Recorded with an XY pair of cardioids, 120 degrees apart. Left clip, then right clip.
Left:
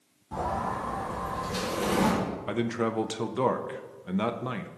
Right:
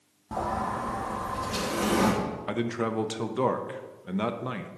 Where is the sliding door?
60° right, 2.5 m.